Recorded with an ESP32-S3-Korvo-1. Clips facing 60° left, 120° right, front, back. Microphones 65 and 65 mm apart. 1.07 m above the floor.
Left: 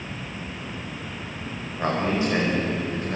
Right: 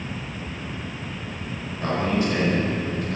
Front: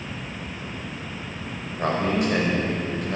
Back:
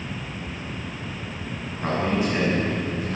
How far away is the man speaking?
About 5.5 m.